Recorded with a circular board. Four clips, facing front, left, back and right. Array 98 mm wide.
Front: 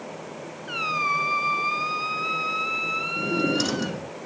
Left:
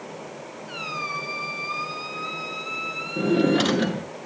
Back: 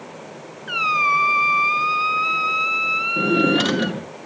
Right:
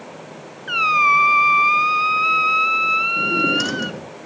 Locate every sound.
0.7 s a squeak: 110° right, 0.5 m
3.2 s a drawer: 150° left, 0.9 m